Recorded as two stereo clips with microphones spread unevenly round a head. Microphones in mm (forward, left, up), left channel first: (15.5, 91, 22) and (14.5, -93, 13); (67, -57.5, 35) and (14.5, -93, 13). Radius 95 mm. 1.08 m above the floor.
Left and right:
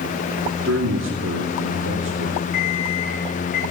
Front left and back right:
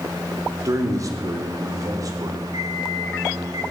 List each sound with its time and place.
0.7 s a man speaking: 115° right, 3 m; by 2.4 s 120° right, 4.5 m
2.5 s an alarm clock: 140° left, 8.5 m